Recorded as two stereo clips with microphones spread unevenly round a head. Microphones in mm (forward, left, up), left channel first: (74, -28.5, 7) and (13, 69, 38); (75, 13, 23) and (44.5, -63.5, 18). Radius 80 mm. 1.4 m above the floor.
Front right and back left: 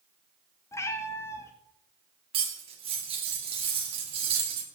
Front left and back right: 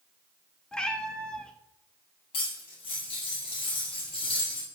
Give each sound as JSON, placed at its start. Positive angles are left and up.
{"t": 0.7, "sound": "a cat meowing", "azimuth_deg": 10, "distance_m": 0.7}
{"t": 2.3, "sound": "cutlery clinking", "azimuth_deg": 95, "distance_m": 1.6}